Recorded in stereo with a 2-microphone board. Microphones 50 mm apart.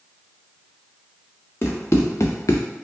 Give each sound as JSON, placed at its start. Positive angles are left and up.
{"t": 1.6, "sound": "running footsteps", "side_deg": 50, "distance_m": 1.2}